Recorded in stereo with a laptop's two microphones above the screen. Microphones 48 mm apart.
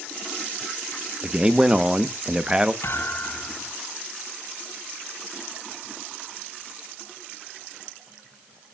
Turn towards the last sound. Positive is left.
turn(degrees=70)  # may be behind; listen again after turning